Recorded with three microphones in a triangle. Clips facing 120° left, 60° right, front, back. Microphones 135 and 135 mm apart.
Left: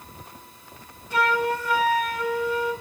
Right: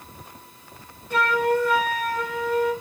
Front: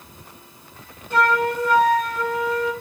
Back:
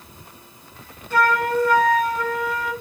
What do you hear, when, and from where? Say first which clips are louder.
1.1 s a flute: right 2 dB, even; 70° right, 3.5 m